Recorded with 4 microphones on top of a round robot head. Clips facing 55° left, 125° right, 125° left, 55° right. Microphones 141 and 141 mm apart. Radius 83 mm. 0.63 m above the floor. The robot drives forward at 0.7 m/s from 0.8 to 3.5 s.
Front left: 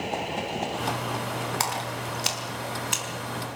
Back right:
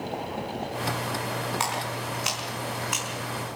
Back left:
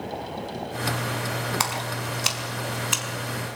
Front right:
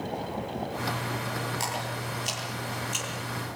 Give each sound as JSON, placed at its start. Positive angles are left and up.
{"t": 1.6, "sound": "a splash", "azimuth_deg": 105, "distance_m": 4.5}